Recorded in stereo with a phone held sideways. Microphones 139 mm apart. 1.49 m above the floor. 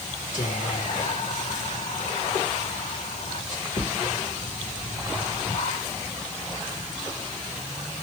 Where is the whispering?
70° left (ahead or behind), 1.5 m.